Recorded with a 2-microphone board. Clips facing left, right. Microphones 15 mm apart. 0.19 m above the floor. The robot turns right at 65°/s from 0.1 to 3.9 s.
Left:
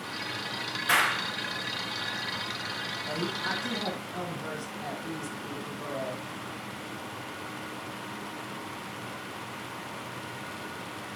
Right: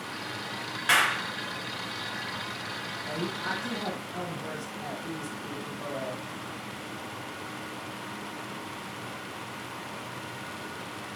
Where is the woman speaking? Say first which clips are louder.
Even; 25° left (ahead or behind), 1.6 m; by 6.2 s 20° left (ahead or behind), 1.6 m.